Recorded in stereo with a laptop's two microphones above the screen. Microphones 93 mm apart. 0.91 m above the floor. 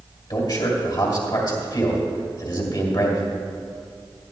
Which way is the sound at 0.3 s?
50° left (ahead or behind).